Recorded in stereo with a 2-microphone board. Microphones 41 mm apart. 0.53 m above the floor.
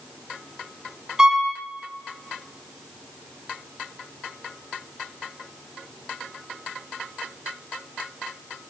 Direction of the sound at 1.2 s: 15° right (ahead or behind).